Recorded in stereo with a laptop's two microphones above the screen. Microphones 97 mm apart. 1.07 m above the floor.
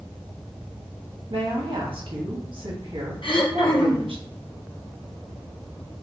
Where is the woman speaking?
60° right (ahead or behind), 1.2 m.